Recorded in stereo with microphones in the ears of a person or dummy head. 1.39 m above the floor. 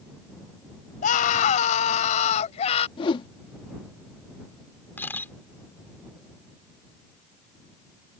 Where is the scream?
50° left (ahead or behind); by 2.9 s 40° left (ahead or behind).